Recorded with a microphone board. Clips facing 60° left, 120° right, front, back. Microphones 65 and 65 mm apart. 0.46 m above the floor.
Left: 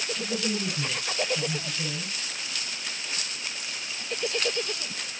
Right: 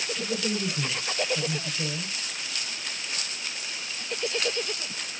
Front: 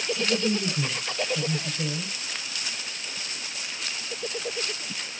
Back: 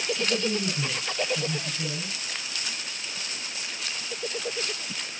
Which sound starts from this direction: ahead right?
A woman speaking, at 0.2 s.